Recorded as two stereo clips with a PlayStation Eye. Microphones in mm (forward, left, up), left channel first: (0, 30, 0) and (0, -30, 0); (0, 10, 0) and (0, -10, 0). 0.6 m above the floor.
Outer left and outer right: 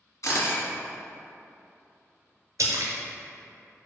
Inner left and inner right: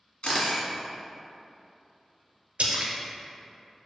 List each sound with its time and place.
0.2 s a camera shutter: 70° left (ahead or behind), 1.4 m
2.6 s a splash: 75° right (ahead or behind), 0.7 m